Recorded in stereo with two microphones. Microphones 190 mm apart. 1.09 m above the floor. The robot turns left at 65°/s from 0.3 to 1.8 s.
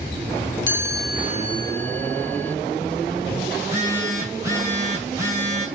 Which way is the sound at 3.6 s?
15° right (ahead or behind).